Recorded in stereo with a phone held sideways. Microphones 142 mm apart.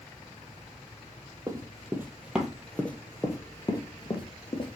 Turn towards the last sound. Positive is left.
turn(degrees=45)  # may be behind; listen again after turning